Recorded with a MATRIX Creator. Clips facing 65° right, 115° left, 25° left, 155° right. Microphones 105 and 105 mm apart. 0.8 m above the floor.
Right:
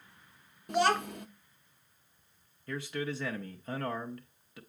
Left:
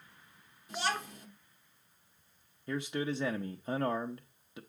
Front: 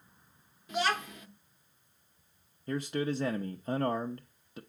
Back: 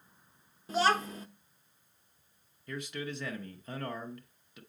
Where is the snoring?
I don't hear snoring.